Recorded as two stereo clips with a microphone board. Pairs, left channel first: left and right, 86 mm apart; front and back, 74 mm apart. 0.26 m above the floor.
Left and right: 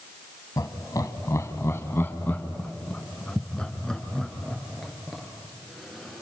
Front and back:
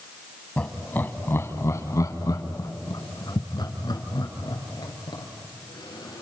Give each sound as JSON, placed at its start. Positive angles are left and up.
{"t": 0.6, "sound": "laughter", "azimuth_deg": 70, "distance_m": 1.9}